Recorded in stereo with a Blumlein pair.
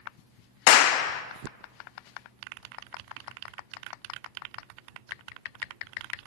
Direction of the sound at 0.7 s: 45° left.